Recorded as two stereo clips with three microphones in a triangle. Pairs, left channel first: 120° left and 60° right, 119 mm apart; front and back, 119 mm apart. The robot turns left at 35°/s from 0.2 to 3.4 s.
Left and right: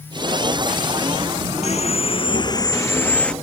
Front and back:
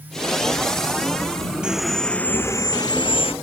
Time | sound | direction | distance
1.6 | sawing | 100° left | ?